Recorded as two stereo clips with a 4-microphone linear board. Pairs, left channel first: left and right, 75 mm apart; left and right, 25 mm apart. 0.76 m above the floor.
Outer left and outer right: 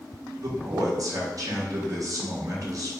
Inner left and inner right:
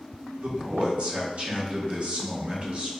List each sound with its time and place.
0.4 s a man speaking: 50° right (ahead or behind), 0.7 m